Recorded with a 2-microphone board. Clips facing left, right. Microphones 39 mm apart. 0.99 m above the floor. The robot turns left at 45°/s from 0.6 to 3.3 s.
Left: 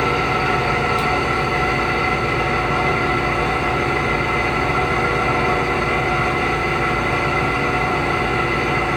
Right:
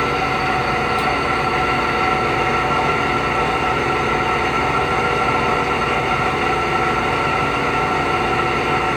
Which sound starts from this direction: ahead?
An engine running, at 0.0 s.